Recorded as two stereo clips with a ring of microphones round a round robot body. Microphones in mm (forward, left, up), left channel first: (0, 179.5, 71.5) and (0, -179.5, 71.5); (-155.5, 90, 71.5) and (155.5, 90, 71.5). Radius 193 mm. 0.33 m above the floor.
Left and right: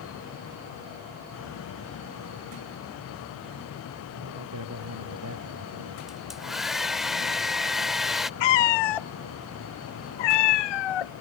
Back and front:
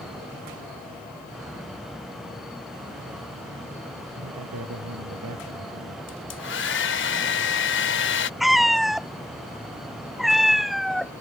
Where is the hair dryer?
Straight behind.